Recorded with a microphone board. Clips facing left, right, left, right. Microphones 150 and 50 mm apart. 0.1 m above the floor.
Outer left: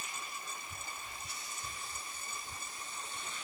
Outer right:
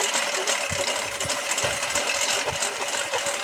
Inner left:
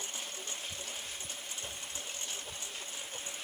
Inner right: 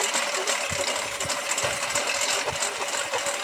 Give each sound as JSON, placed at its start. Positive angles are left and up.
{"t": 0.0, "sound": "a lawn mower", "side_deg": -80}